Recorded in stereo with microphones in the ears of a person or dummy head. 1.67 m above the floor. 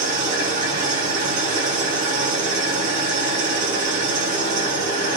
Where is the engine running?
45° right (ahead or behind), 1.1 m.